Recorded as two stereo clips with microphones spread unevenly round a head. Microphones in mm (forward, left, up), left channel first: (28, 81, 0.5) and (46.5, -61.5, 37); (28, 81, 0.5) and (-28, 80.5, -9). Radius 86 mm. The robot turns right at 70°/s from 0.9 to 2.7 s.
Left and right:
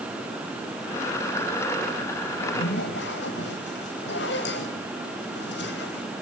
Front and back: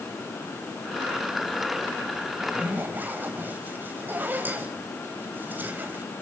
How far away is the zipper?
About 4 m.